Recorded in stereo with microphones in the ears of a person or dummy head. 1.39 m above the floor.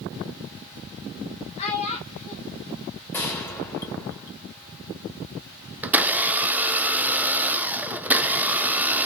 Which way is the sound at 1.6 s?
35° left (ahead or behind).